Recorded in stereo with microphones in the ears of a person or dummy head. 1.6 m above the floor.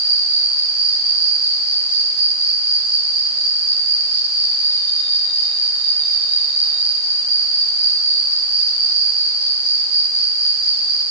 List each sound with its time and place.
0.0 s an insect: 55° right (ahead or behind), 6.5 m